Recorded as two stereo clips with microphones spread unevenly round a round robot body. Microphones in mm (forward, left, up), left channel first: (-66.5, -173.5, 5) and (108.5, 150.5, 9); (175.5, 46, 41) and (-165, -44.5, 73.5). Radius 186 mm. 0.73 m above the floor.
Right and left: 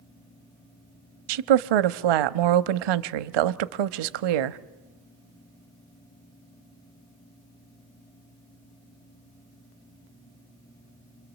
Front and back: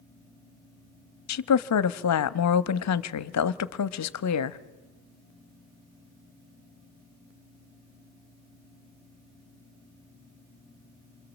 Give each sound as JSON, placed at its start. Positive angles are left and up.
{"t": 1.3, "sound": "a woman speaking", "azimuth_deg": 55, "distance_m": 0.8}